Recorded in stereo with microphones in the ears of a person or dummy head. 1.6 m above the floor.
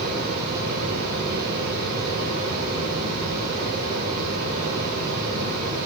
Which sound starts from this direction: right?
A fan, at 0.0 s.